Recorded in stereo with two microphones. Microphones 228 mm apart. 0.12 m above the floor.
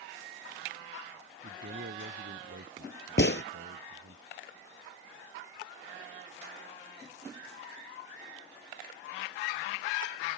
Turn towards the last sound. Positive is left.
turn(degrees=55)  # may be behind; listen again after turning